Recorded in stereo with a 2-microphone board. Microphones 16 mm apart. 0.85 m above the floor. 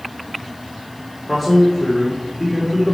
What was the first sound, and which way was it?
A man speaking, centre (ahead or behind).